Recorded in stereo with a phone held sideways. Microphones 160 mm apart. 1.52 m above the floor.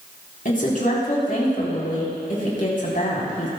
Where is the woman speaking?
60° left (ahead or behind), 4 m.